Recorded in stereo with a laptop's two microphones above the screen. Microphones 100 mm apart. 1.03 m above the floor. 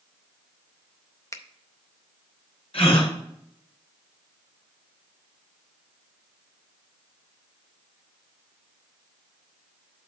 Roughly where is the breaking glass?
No breaking glass in this recording.